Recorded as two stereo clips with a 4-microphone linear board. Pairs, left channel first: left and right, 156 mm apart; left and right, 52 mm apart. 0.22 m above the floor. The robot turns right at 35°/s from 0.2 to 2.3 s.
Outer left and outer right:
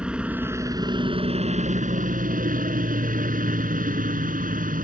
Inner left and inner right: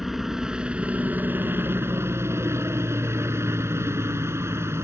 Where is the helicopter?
175° right; by 4.8 s 100° right.